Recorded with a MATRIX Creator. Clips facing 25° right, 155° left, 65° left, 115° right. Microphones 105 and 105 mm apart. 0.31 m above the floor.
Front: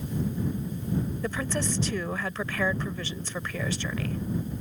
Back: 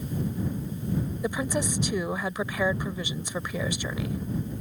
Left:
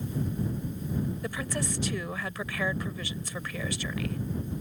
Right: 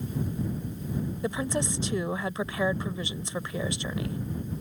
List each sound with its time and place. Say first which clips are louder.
1.2 s a woman speaking: back 2 dB, right 4 dB; 145° right